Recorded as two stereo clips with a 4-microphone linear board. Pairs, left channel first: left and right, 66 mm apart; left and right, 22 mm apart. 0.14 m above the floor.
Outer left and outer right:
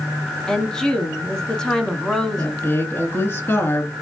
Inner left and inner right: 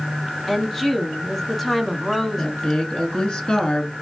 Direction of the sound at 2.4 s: 35° left (ahead or behind).